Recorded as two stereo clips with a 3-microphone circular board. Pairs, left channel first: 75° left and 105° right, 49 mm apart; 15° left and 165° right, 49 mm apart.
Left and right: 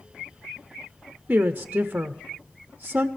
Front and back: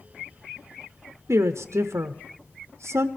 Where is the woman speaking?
165° right, 0.6 m.